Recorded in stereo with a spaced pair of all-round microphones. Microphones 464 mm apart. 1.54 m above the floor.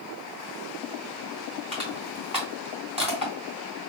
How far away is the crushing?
About 3 m.